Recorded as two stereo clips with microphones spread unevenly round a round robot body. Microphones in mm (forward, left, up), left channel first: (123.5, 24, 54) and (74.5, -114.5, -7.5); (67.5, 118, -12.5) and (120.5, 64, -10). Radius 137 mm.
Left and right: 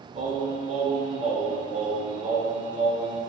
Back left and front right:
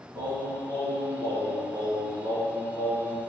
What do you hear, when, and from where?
0.1 s singing: 70° right, 1.0 m